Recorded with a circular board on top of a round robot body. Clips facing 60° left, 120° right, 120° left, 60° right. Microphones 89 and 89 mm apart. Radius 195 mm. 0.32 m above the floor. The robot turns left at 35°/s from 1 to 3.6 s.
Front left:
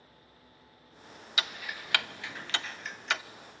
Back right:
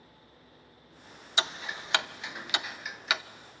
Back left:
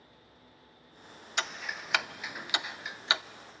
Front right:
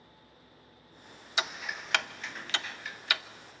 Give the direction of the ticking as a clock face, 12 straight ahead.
5 o'clock.